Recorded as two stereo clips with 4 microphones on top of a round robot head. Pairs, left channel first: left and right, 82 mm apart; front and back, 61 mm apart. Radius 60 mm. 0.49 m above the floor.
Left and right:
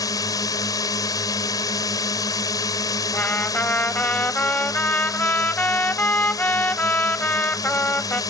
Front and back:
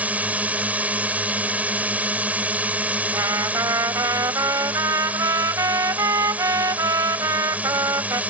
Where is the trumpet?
155° left.